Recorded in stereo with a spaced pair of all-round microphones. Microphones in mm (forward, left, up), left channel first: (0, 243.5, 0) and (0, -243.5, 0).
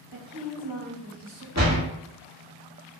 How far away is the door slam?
About 1.0 m.